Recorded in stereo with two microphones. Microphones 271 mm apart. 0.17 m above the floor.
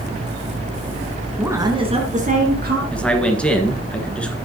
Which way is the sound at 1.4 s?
5° right (ahead or behind).